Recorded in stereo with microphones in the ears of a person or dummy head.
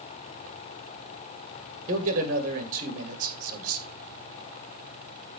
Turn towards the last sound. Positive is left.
turn(degrees=-50)  # may be behind; listen again after turning